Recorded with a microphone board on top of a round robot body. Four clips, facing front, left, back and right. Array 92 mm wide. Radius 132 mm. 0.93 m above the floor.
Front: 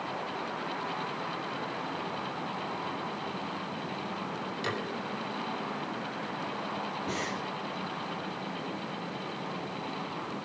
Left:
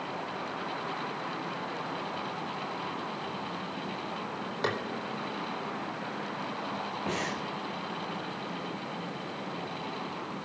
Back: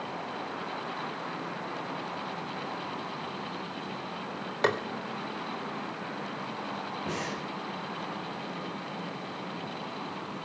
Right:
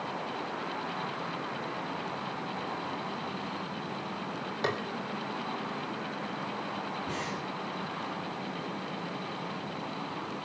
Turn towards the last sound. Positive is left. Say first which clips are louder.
# left 2 dB, back 1 dB
turn(degrees=120)